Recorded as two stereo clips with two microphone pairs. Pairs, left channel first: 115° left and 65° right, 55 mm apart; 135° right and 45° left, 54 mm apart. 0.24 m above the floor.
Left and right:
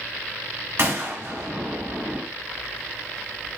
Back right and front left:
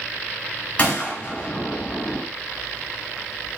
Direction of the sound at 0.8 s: 85° right.